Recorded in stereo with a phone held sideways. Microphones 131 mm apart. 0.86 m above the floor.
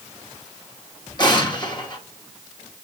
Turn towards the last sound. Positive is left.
turn(degrees=35)  # may be behind; listen again after turning